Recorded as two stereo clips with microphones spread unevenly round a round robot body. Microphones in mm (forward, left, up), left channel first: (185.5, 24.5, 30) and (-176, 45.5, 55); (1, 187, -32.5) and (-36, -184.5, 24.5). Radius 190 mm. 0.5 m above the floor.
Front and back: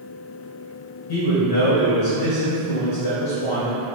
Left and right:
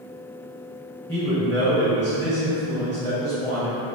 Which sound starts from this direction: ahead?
A man speaking, at 1.1 s.